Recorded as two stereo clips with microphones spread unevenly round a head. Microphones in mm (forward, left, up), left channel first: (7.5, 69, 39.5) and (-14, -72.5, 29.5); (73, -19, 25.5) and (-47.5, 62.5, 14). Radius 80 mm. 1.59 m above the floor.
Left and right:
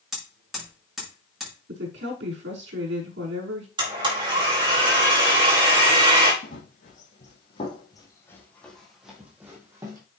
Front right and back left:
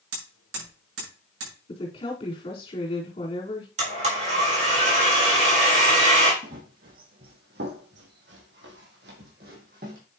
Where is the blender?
160° right, 4.5 m.